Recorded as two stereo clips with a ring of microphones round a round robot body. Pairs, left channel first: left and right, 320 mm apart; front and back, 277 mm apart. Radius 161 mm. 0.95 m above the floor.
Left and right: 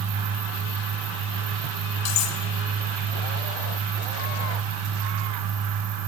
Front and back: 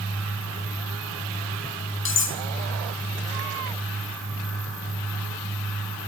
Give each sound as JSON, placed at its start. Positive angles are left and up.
{"t": 2.0, "sound": "cutlery clinking", "azimuth_deg": 45, "distance_m": 4.5}